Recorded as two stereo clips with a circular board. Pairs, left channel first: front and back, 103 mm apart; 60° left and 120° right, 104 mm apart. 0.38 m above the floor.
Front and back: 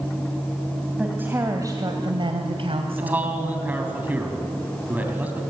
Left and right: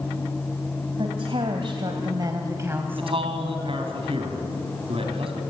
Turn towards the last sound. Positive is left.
turn(degrees=-110)